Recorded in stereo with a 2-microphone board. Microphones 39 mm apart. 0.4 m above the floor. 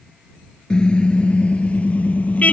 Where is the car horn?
20° left (ahead or behind); by 2.5 s 40° left (ahead or behind).